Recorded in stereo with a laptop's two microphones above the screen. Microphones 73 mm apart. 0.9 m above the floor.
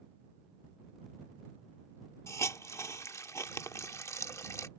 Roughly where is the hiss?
Left.